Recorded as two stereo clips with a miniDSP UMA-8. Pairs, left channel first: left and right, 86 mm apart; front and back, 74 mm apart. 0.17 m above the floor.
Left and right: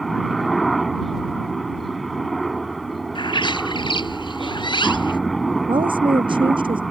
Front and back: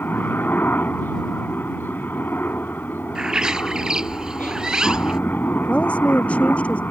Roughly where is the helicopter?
Ahead.